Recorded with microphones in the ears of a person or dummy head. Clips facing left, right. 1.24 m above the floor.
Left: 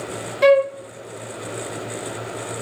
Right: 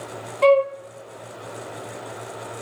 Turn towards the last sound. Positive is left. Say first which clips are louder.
# left 2 dB
turn(degrees=20)  # may be behind; listen again after turning